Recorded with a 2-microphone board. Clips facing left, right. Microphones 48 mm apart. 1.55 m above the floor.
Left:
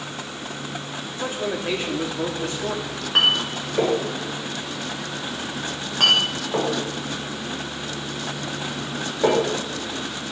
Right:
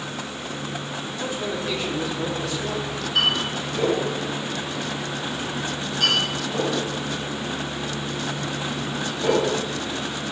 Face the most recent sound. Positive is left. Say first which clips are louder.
# left 3 dB
turn(degrees=50)  # may be behind; listen again after turning